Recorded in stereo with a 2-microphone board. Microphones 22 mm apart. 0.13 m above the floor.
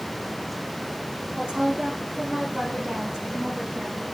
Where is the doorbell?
No doorbell in this recording.